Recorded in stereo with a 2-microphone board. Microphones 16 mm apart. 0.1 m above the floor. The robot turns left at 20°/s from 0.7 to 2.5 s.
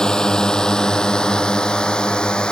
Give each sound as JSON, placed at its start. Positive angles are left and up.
{"t": 0.0, "sound": "a drone", "side_deg": 50}